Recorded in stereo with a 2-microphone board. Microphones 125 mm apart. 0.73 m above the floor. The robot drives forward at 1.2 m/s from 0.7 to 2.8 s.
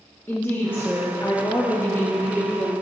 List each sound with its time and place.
0.3 s a woman speaking: 15° left (ahead or behind), 1.0 m; by 2.7 s 10° left (ahead or behind), 1.7 m